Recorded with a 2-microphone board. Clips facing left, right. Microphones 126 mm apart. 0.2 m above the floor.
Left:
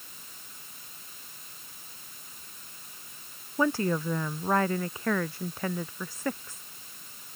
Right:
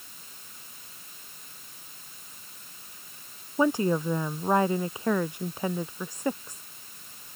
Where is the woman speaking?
15° right (ahead or behind).